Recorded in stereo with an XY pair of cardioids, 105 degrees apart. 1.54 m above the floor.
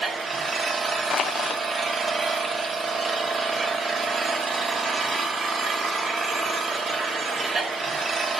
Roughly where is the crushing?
Ahead left.